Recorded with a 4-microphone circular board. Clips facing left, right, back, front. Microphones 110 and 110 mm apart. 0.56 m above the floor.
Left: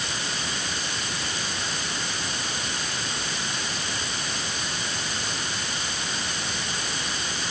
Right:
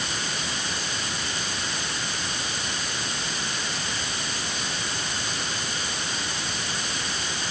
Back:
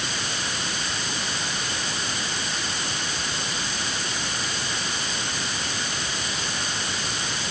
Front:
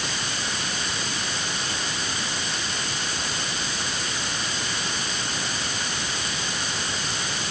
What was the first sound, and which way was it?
Only background noise.